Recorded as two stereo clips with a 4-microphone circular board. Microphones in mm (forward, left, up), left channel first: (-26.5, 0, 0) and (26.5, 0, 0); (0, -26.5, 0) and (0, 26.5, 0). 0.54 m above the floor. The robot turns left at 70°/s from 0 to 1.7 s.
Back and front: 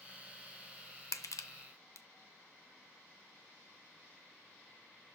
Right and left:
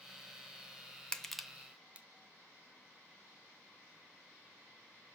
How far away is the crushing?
About 0.6 m.